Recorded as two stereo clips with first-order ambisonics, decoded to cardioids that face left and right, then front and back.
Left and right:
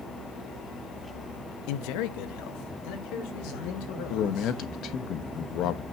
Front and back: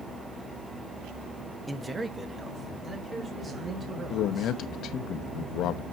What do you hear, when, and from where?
1.7 s a man speaking: 95° left, 0.8 m; by 4.6 s 105° left, 5 m
4.1 s a man speaking: 45° left, 0.9 m